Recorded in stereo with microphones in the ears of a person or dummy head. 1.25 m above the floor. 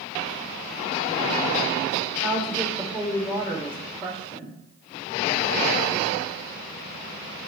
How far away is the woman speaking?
About 3 m.